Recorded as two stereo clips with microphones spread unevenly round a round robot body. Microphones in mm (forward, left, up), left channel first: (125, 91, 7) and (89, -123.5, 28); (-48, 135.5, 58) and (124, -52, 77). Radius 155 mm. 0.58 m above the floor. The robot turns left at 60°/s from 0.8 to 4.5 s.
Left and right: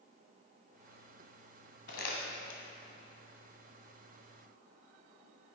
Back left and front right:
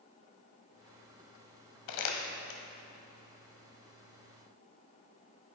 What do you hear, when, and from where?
1.9 s crumpling: 140° left, 1.1 m; by 2.6 s 95° left, 1.1 m